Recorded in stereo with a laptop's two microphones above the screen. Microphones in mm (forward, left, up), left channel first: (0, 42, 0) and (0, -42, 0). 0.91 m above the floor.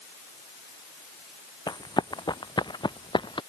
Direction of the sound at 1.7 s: 55° left (ahead or behind).